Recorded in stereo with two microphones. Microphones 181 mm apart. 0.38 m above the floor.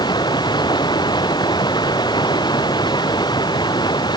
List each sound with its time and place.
0.0 s running water: 25° left (ahead or behind)